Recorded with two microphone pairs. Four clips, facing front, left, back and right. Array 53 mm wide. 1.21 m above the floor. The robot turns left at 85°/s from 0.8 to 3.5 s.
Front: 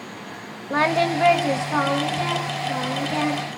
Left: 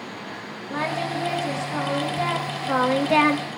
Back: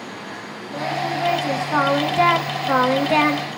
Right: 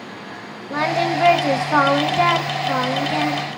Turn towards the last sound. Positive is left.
turn(degrees=110)